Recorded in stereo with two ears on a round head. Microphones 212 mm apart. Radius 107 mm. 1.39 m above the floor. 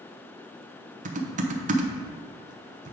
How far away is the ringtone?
I don't hear a ringtone.